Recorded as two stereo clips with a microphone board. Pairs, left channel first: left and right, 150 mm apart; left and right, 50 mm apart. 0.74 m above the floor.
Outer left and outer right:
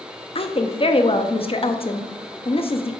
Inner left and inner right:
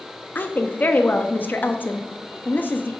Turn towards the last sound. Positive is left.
turn(degrees=40)  # may be behind; listen again after turning